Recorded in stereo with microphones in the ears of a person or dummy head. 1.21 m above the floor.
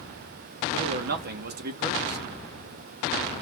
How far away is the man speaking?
About 1.1 m.